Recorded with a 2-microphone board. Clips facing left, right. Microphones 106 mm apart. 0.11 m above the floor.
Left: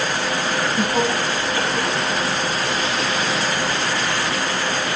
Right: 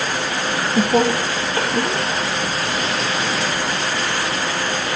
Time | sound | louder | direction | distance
0.4 | laughter | right 4 dB | 55° right (ahead or behind) | 2.5 m